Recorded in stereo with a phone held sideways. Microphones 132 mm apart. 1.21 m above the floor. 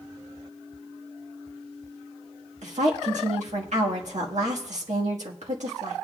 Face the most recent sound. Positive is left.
turn(degrees=-70)  # may be behind; listen again after turning